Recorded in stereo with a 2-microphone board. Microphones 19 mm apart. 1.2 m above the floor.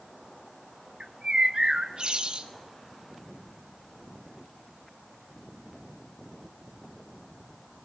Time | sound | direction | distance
1.0 | a bird | 45° right (ahead or behind) | 1.3 m